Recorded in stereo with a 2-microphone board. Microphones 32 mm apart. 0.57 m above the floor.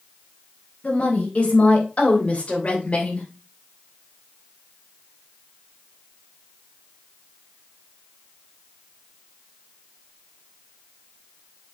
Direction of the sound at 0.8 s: 50° left (ahead or behind).